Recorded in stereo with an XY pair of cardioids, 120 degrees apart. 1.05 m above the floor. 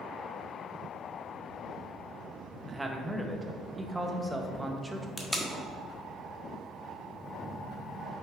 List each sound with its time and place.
2.7 s a man speaking: 10° right, 1.1 m
5.2 s tape being pulled: 5° left, 1.3 m
7.2 s a phone buzzing: 45° right, 2.5 m